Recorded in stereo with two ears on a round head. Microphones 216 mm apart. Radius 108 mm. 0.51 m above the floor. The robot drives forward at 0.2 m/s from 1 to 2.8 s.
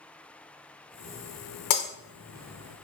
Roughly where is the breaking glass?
Left.